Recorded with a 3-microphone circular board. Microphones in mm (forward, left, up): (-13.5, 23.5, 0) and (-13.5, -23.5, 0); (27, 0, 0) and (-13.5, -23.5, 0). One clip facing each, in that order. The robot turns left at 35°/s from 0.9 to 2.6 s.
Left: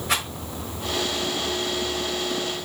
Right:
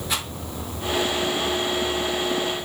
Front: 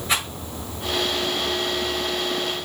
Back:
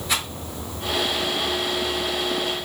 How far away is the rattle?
About 3.5 m.